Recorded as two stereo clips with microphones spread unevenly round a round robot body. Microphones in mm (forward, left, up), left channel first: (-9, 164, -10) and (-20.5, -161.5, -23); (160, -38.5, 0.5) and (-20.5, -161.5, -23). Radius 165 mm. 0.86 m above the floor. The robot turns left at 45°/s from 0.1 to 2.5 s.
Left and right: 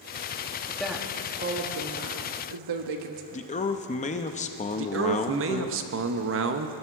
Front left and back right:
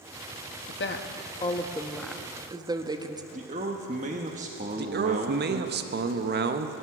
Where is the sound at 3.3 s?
155° left, 0.7 m.